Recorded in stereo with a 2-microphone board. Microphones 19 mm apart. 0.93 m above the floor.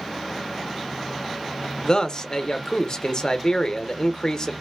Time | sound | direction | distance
1.8 | a man speaking | 40° left (ahead or behind) | 0.7 m